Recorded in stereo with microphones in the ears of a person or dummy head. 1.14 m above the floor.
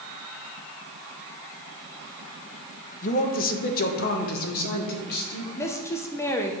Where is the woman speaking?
10° left (ahead or behind), 0.7 m.